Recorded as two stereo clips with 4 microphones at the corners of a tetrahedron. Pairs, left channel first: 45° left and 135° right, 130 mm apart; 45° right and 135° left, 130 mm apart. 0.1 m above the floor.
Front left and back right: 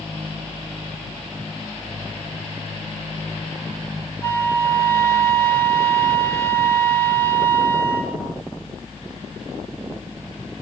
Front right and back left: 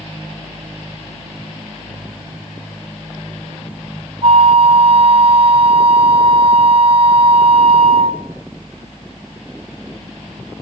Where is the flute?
115° left, 1.7 m.